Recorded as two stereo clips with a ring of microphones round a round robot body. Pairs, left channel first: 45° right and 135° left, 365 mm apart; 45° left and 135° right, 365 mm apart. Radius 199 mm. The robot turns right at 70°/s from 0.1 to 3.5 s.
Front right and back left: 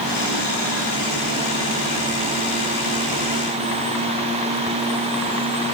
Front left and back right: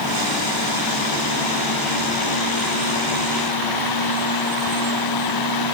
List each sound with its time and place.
Only background noise.